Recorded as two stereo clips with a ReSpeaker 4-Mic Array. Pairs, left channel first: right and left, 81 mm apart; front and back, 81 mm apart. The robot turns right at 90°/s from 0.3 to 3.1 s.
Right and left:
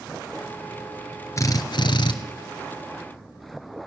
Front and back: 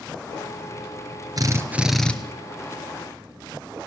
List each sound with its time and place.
1.4 s a drill: 140° right, 1.8 m; by 2.1 s 70° right, 1.8 m